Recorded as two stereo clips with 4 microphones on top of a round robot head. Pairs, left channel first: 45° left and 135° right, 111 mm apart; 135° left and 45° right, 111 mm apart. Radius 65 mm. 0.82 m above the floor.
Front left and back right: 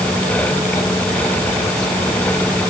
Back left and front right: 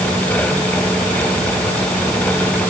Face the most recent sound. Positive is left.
No sound to turn to.